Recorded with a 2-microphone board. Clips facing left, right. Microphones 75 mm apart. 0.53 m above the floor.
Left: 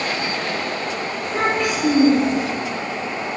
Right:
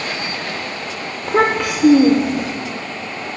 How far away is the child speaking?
About 0.7 m.